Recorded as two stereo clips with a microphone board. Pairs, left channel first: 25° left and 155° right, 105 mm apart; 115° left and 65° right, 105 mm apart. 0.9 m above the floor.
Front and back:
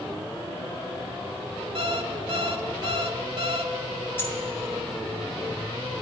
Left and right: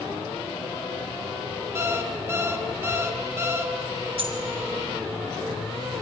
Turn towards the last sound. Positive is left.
turn(degrees=-45)